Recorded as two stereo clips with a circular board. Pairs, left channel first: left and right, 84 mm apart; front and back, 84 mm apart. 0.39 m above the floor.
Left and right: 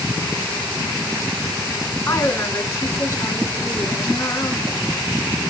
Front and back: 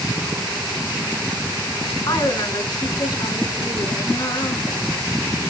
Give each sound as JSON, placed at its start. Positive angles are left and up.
{"t": 2.1, "sound": "a woman speaking", "azimuth_deg": 35, "distance_m": 3.5}